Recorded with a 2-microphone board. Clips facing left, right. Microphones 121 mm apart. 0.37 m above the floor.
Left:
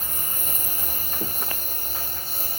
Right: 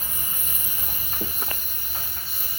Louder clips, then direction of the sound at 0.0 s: Left 3 dB; 45° left (ahead or behind).